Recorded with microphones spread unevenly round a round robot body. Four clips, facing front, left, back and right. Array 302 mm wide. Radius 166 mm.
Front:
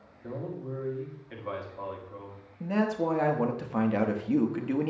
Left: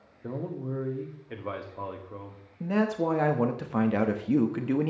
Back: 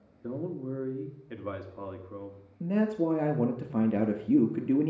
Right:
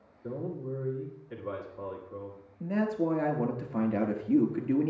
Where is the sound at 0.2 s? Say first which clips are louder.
Left 1 dB, back 2 dB; 145° left, 1.5 m.